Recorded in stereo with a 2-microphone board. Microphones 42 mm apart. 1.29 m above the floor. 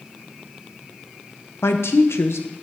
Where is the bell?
I don't hear a bell.